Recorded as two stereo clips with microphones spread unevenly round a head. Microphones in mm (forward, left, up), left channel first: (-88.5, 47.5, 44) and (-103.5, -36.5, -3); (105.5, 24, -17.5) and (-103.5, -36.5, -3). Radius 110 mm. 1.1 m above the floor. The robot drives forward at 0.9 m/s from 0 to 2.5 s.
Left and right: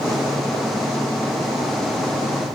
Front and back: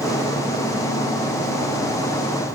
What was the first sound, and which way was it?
Only background noise.